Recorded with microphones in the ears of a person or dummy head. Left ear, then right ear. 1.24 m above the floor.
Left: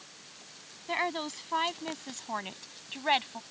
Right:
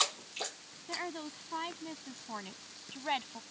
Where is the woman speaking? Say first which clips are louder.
Left 8 dB; 45° left (ahead or behind); by 3.4 s 25° left (ahead or behind).